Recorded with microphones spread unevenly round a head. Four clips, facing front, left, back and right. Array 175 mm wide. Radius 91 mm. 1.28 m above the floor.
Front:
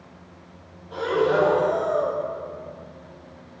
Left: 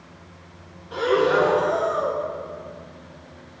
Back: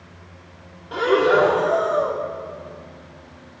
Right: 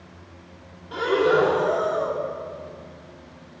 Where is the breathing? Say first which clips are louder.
Even, back 4 dB; 175° right, 4 m.